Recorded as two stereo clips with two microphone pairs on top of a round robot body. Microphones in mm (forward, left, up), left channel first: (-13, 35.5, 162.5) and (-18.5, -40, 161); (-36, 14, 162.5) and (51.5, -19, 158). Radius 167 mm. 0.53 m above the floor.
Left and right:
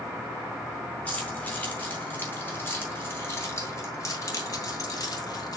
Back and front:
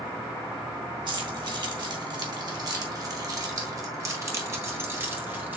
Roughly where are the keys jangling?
Ahead.